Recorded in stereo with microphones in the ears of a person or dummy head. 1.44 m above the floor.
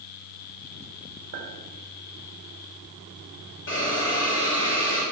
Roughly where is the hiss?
Left.